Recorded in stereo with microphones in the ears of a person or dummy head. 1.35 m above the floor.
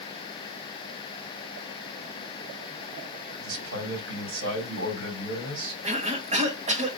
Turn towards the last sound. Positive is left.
turn(degrees=-35)  # may be behind; listen again after turning